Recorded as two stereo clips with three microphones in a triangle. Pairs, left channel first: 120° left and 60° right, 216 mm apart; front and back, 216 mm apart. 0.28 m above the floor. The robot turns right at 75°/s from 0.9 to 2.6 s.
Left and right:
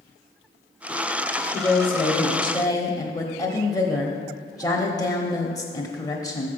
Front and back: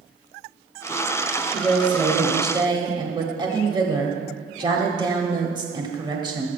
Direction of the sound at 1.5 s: 80° left.